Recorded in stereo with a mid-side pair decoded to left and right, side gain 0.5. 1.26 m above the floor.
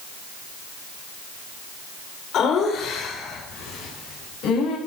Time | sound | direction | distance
2.3 | laughter | 60° left | 4 m